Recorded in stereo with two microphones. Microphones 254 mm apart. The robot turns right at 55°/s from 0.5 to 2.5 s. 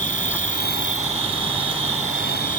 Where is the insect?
35° left; by 2.6 s 145° left.